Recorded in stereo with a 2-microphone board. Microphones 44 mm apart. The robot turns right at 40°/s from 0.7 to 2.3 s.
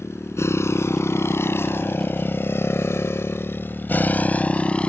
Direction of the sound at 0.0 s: 85° left.